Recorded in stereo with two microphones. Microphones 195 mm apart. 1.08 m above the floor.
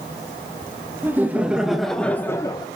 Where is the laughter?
10° right (ahead or behind), 1.5 m; by 2.7 s 25° left (ahead or behind), 0.8 m.